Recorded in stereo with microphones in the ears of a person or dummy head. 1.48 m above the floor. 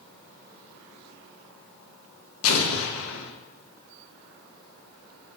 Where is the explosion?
85° left, 0.6 m.